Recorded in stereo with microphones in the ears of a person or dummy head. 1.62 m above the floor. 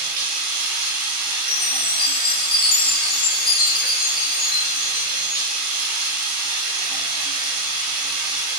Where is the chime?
25° left (ahead or behind), 0.5 m.